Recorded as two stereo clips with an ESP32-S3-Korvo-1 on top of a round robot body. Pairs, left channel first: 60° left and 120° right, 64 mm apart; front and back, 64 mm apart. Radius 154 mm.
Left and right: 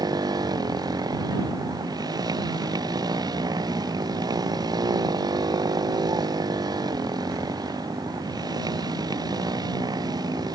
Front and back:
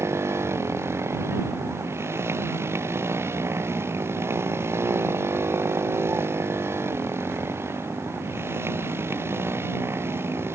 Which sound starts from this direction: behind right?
A motorcycle, at 0.0 s.